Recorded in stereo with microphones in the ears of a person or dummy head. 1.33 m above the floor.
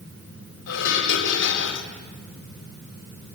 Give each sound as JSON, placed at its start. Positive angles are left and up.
{"t": 0.7, "sound": "dishes clattering", "side_deg": 75, "distance_m": 3.0}